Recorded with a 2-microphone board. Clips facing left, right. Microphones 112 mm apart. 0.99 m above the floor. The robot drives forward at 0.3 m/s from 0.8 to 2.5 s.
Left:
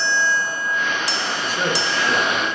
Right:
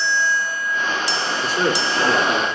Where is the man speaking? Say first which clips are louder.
Right 3 dB; 70° right (ahead or behind), 2.5 m; by 2.5 s 75° right (ahead or behind), 2 m.